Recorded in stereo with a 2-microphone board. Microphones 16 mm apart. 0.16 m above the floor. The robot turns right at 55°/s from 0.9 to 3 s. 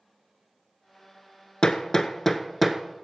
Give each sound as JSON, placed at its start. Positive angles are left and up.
{"t": 1.6, "sound": "hammering", "side_deg": 50, "distance_m": 0.7}